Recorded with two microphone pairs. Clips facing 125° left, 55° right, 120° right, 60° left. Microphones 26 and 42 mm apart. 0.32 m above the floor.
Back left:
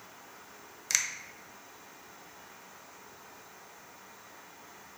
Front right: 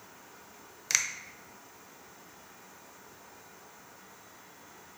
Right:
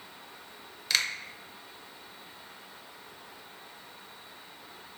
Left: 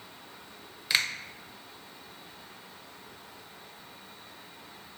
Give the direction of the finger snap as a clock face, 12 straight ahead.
12 o'clock.